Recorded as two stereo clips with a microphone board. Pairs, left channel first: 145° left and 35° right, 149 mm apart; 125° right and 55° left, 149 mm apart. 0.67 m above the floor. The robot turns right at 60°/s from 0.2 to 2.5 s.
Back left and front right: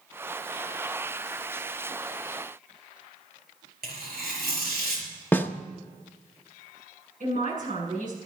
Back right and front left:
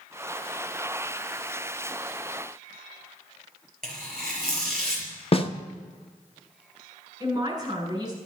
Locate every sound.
3.8 s tearing paper: 40° right, 5 m
5.3 s a snare drum: 145° right, 0.8 m
7.2 s a man speaking: 10° right, 7 m